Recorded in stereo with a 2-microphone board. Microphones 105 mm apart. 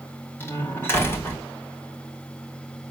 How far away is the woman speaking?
I don't hear a woman speaking.